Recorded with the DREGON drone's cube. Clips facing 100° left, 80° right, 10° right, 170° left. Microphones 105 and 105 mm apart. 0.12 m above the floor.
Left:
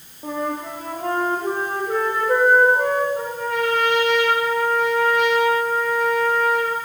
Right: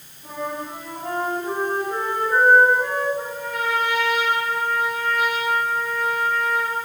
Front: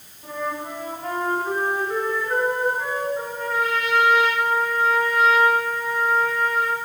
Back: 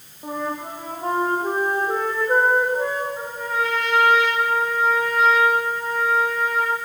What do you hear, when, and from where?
0.2 s a flute: 115° left, 6.5 m
3.2 s a trumpet: 80° left, 7.5 m